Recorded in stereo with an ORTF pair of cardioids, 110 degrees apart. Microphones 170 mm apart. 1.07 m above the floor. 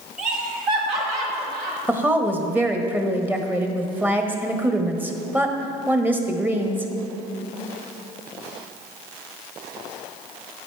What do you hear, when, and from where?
0.2 s laughter: 55° right, 2.5 m; by 1.8 s 75° right, 3 m
1.9 s a woman speaking: 10° right, 1.2 m